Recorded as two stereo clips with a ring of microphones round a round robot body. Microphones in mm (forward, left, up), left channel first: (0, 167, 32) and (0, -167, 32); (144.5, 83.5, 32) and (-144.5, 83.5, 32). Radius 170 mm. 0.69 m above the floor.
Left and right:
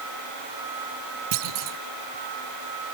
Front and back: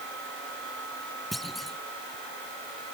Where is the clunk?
90° right.